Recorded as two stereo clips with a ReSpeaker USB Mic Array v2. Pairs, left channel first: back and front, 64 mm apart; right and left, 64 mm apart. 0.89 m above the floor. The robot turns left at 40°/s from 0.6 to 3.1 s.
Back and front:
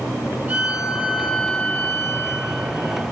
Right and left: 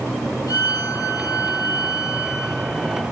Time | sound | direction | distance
0.5 | a violin | 60° right | 7.5 m